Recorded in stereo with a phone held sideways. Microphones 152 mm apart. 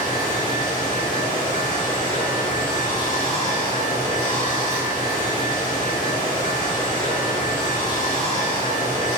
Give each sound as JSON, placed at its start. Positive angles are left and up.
{"t": 0.0, "sound": "running water", "side_deg": 25, "distance_m": 1.4}